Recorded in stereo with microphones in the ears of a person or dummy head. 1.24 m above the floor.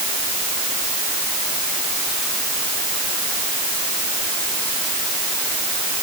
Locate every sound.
Only background noise.